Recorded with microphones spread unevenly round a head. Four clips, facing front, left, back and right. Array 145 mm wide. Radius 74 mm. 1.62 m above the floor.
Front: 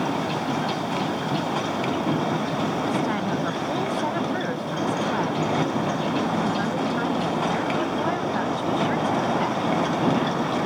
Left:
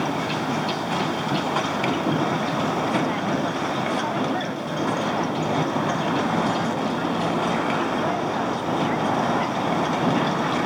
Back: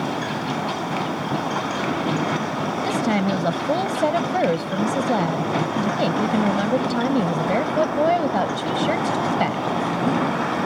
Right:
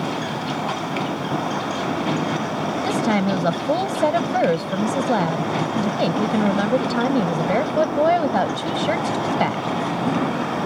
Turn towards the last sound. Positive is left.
turn(degrees=-125)